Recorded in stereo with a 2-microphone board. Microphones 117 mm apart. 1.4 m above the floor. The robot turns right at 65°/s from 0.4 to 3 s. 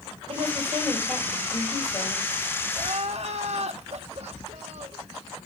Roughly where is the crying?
Right.